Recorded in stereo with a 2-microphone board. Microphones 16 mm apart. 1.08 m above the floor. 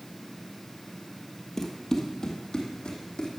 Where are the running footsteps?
20° left (ahead or behind), 1.5 m; by 3.3 s 60° left (ahead or behind), 3 m.